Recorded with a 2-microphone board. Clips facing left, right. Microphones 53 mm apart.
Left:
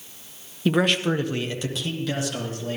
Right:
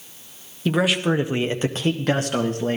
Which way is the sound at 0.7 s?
5° left (ahead or behind).